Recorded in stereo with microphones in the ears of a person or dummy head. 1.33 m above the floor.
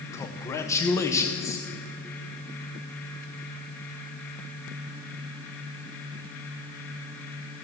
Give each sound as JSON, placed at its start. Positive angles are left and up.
{"t": 0.1, "sound": "a man speaking", "side_deg": 15, "distance_m": 0.6}